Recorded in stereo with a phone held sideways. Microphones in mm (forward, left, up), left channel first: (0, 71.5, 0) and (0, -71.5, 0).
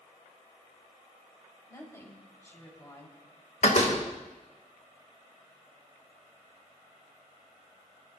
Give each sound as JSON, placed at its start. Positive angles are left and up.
{"t": 1.7, "sound": "a woman speaking", "side_deg": 20, "distance_m": 4.0}
{"t": 3.6, "sound": "a door slam", "side_deg": 60, "distance_m": 2.5}